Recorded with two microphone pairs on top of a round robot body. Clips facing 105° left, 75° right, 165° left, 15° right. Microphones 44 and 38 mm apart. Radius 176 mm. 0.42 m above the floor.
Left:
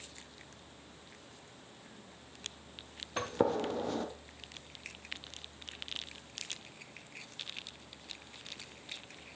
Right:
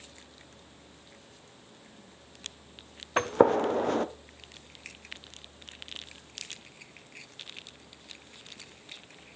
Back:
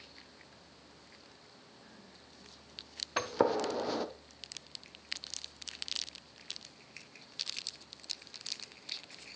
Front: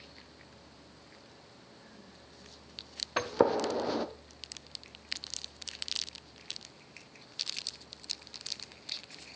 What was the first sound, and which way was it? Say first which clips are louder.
A gunshot: right 9 dB, front 3 dB; 95° right.